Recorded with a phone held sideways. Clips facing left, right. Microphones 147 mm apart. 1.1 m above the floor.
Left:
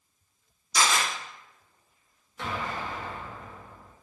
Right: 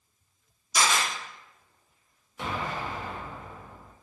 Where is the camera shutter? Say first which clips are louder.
Even; 10° right (ahead or behind), 1.9 m.